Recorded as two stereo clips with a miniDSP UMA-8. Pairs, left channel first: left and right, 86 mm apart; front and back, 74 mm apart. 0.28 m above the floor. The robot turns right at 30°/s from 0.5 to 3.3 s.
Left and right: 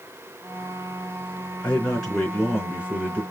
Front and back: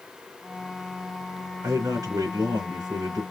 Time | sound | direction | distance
1.6 | a man speaking | 160° left | 3.5 m